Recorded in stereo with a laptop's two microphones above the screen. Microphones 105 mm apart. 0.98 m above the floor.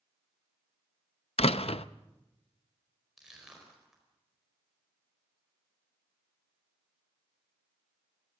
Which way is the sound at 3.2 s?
5° right (ahead or behind).